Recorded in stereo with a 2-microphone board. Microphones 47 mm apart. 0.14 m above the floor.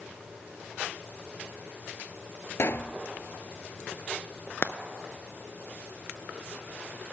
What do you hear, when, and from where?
2.6 s a pop: 60° left (ahead or behind), 0.5 m
4.6 s frying: 55° left (ahead or behind), 0.5 m